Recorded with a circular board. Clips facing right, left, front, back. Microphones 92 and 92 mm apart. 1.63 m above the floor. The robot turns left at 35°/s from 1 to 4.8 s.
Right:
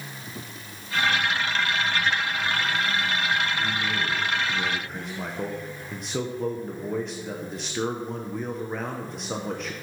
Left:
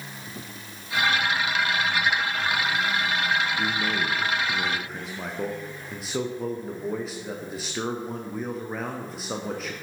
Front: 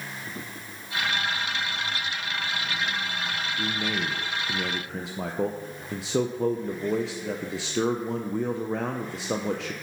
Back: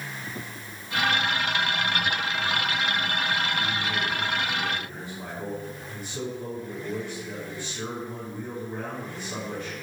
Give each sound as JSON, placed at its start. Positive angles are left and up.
{"t": 3.6, "sound": "a man speaking", "azimuth_deg": 45, "distance_m": 0.6}